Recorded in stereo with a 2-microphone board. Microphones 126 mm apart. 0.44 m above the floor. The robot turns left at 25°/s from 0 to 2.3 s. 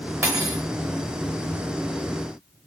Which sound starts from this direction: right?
Cutlery clinking, at 0.2 s.